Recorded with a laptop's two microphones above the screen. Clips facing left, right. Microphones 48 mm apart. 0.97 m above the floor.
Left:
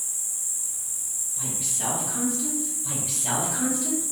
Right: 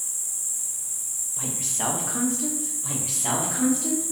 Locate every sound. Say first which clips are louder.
0.0 s an insect: even; 10° left (ahead or behind), 1.4 m
1.4 s a woman speaking: right 3 dB; 50° right (ahead or behind), 0.8 m
2.8 s a woman speaking: right 2 dB; 80° right, 1.7 m